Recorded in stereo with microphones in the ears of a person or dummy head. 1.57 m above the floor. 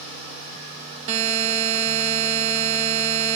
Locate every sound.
1.1 s a buzzer: 40° right (ahead or behind), 1.5 m